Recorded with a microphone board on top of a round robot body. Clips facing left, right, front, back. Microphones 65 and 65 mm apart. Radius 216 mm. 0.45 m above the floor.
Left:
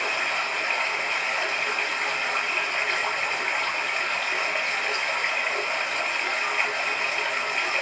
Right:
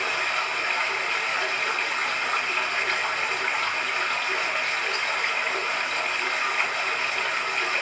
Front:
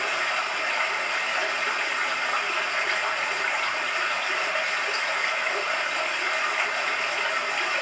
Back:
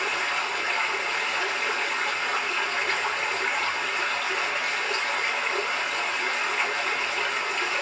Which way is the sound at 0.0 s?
70° right.